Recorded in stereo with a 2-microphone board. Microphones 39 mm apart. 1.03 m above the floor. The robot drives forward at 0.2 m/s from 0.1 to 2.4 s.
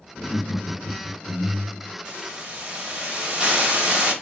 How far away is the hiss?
About 0.9 m.